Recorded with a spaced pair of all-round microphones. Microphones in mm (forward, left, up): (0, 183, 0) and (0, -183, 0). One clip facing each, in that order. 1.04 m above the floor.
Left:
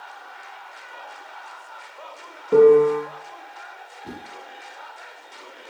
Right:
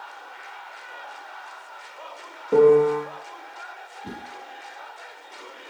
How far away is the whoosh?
About 1.4 m.